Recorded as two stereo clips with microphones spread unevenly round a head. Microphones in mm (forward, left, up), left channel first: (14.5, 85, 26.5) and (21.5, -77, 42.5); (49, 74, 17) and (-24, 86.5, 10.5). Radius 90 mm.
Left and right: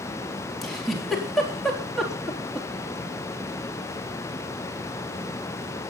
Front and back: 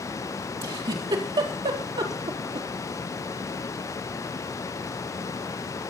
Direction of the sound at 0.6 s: Straight behind.